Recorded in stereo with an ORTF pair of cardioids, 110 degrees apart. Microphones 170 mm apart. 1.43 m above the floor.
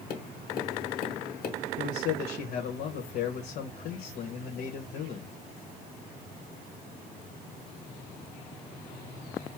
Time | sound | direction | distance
0.1 | tapping | 65° left | 1.7 m
1.8 | a man speaking | 65° left | 1.1 m